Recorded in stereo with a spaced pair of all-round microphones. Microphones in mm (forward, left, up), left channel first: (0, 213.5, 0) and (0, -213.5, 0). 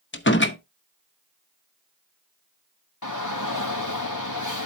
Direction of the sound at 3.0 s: 45° left (ahead or behind).